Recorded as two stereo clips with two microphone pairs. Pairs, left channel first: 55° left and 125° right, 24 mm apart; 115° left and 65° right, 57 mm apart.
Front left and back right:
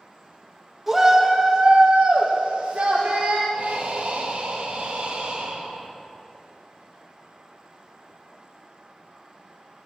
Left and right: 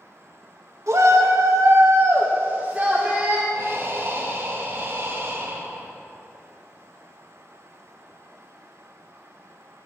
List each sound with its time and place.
0.9 s a shout: 45° right, 1.8 m; by 3.4 s 140° right, 1.8 m
3.5 s breathing: 105° right, 1.7 m